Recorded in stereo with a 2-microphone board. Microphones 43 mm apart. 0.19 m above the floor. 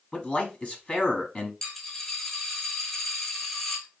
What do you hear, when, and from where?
0.1 s a man speaking: 25° left (ahead or behind), 1.2 m
1.6 s a dropped coin: 15° left (ahead or behind), 1.2 m